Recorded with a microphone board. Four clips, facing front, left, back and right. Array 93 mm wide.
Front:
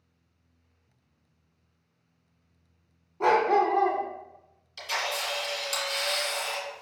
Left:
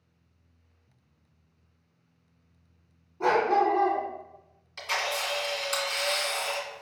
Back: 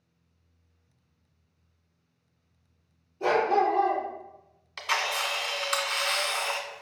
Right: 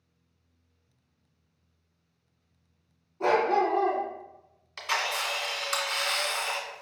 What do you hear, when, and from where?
3.2 s a dog barking: 5° left, 1.1 m
4.8 s a camera shutter: 155° right, 1.4 m